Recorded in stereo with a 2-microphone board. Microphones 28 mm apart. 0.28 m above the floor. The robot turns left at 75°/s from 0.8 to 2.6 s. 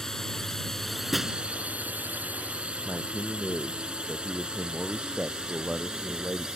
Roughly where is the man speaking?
Right.